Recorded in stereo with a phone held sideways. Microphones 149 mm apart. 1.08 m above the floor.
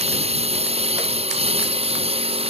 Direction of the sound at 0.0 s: 45° right (ahead or behind).